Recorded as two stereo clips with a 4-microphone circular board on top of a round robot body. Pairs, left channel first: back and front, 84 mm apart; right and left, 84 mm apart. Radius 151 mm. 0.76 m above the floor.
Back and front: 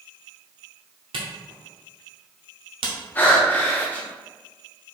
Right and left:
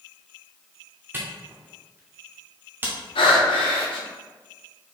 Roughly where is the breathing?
Right.